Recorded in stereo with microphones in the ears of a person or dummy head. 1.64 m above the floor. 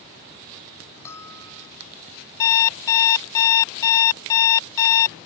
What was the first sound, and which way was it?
A bell, 10° left (ahead or behind).